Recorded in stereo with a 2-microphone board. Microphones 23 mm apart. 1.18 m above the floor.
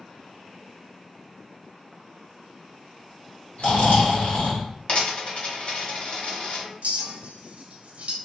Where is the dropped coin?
50° left (ahead or behind), 1.4 m.